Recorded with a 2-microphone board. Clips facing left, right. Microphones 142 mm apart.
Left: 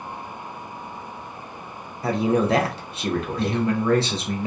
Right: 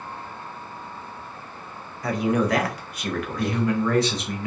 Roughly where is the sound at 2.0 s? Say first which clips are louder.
Left 2 dB; left.